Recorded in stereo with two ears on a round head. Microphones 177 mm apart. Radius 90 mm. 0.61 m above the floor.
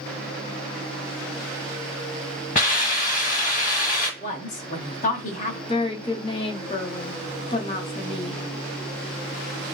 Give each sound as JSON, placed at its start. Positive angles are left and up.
{"t": 2.5, "sound": "a hiss", "side_deg": 40, "distance_m": 1.0}
{"t": 4.2, "sound": "a woman speaking", "side_deg": 40, "distance_m": 0.7}
{"t": 5.7, "sound": "a woman speaking", "side_deg": 25, "distance_m": 0.7}